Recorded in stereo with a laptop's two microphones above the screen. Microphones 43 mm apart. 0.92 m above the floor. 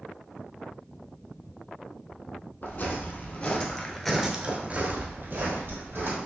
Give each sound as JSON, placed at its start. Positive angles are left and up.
{"t": 2.6, "sound": "footsteps", "side_deg": 50, "distance_m": 2.0}